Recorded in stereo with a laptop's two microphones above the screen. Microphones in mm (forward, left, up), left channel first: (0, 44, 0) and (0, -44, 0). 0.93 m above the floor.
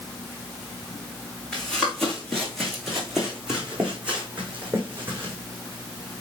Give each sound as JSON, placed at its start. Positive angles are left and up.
{"t": 1.5, "sound": "running footsteps", "side_deg": 10, "distance_m": 3.5}